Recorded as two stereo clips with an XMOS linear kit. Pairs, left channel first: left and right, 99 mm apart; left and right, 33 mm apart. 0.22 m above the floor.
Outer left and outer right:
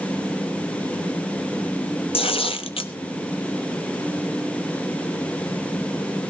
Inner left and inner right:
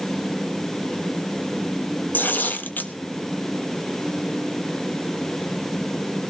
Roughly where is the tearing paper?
Left.